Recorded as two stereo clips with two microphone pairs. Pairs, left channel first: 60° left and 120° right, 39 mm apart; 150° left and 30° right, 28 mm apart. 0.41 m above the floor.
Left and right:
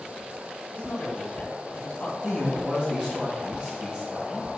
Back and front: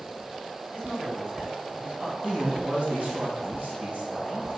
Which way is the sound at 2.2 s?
55° right.